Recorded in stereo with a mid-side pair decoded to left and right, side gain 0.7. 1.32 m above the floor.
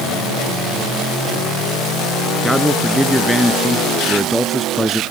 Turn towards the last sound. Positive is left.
turn(degrees=0)